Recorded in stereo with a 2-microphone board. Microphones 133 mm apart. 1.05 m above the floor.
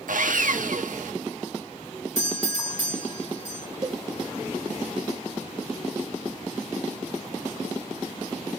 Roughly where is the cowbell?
Right.